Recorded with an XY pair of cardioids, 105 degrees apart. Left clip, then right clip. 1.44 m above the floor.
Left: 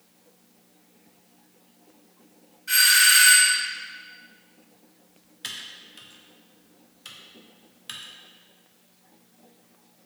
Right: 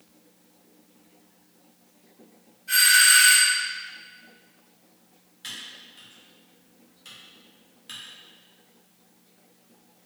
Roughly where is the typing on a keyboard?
Ahead left.